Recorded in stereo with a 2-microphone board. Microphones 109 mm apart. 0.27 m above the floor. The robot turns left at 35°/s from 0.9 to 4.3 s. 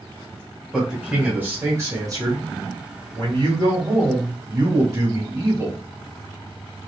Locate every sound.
0.7 s a man speaking: 15° right, 1.7 m; by 5.8 s 135° right, 1.7 m